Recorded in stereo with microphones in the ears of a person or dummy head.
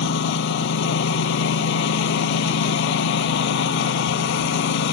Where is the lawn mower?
65° left (ahead or behind).